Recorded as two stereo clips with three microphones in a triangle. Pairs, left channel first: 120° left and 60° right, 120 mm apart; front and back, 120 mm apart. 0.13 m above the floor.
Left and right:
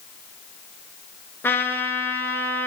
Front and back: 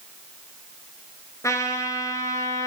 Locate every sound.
1.4 s a trumpet: 55° left, 0.8 m